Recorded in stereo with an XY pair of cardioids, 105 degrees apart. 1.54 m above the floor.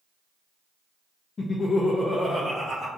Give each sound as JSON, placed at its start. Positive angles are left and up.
{"t": 1.4, "sound": "laughter", "azimuth_deg": 40, "distance_m": 0.6}